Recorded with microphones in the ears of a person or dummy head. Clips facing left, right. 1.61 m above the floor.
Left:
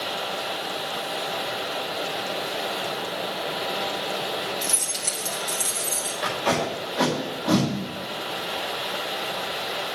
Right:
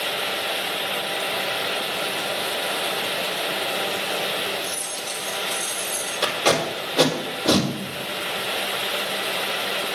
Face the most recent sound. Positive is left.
turn(degrees=-75)  # may be behind; listen again after turning